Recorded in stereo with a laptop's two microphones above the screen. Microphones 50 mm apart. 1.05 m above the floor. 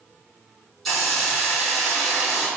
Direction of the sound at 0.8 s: 5° left (ahead or behind).